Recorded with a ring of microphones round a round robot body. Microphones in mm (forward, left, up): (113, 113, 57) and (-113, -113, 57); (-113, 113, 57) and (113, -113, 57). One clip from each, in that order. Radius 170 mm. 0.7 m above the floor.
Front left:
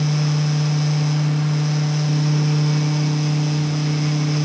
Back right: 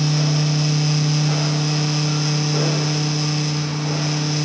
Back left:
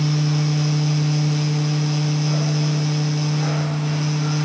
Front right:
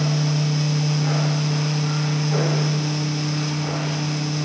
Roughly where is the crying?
I don't hear crying.